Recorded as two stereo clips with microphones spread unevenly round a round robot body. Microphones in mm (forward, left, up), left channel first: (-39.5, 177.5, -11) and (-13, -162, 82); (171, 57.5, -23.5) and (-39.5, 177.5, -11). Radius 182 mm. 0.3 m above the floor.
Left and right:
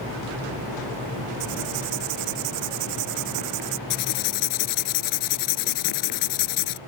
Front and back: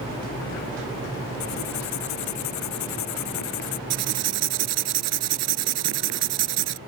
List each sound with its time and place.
1.4 s writing: 45° right
3.9 s writing: 135° left